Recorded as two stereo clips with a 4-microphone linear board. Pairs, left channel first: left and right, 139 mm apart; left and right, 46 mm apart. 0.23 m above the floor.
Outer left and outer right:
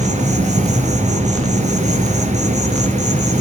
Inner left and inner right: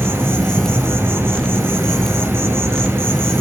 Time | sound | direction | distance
0.0 | an insect | 60° right (ahead or behind) | 1.8 m